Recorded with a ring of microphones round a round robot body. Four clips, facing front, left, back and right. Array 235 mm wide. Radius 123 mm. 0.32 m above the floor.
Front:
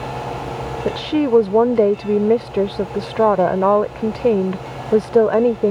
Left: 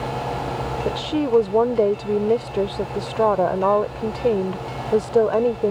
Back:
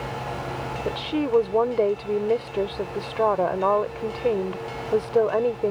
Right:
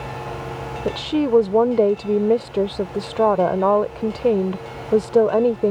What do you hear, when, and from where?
0.8 s a woman speaking: 15° right